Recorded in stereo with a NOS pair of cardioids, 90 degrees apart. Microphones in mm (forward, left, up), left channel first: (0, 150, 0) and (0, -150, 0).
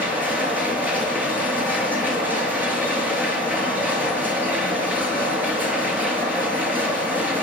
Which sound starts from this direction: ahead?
A machine running, at 0.0 s.